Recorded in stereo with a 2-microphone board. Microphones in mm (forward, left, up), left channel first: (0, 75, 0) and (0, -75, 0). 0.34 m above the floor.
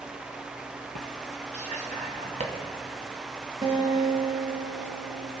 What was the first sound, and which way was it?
Whispering, 55° right (ahead or behind).